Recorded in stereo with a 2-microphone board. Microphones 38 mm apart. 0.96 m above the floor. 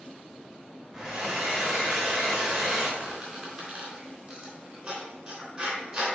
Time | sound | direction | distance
0.9 | a hair dryer | 20° right (ahead or behind) | 3 m
3.0 | a squeak | 25° right (ahead or behind) | 3.5 m